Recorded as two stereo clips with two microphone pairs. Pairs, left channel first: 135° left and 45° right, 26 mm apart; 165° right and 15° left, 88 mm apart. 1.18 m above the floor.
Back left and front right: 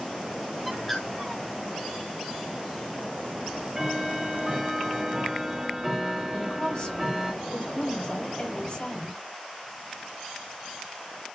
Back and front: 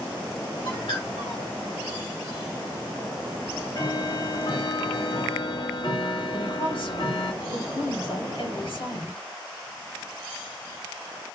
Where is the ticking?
125° right, 1.4 m.